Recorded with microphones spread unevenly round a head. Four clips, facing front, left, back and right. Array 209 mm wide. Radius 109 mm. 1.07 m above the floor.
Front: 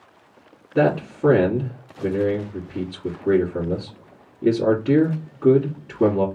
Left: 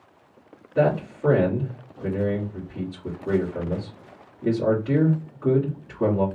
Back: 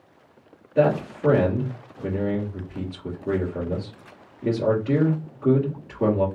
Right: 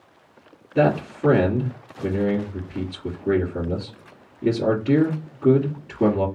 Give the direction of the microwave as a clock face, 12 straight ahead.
No microwave in this recording.